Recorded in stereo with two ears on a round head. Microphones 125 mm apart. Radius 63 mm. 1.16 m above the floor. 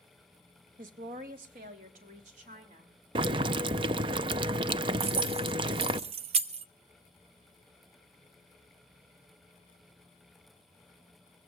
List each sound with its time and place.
0.8 s a woman speaking: 65° right (ahead or behind), 1.7 m; by 2.9 s 60° right (ahead or behind), 5 m
3.1 s boiling: 35° right (ahead or behind), 0.5 m
5.0 s keys jangling: 45° right (ahead or behind), 0.6 m